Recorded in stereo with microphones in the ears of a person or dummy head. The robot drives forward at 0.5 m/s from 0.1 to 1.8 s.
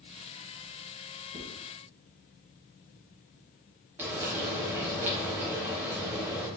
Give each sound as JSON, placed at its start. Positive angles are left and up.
{"t": 1.3, "sound": "writing", "side_deg": -55, "distance_m": 2.0}
{"t": 4.0, "sound": "frying", "side_deg": -15, "distance_m": 1.1}